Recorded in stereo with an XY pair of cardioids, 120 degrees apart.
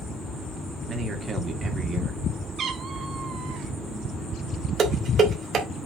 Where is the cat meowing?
50° right, 1.6 m.